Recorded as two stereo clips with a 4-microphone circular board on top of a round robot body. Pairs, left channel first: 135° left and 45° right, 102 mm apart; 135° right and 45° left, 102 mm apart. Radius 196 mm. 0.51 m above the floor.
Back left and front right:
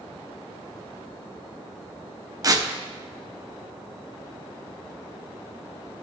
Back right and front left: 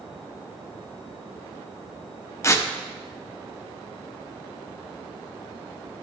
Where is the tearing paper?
85° right, 1.0 m.